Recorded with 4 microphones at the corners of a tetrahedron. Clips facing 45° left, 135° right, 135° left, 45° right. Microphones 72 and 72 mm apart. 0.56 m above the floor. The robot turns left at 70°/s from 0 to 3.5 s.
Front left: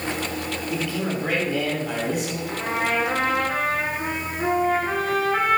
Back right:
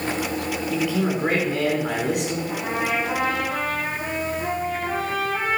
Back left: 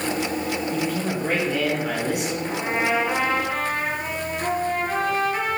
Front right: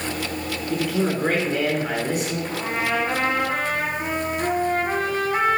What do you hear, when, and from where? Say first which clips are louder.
0.7 s a man speaking: back right 4 dB, front right 7 dB; 45° right, 5 m; by 2.4 s 165° right, 5 m
2.5 s a trumpet: front left 4 dB, back left 4 dB; 90° left, 3 m; by 5.6 s 20° left, 3 m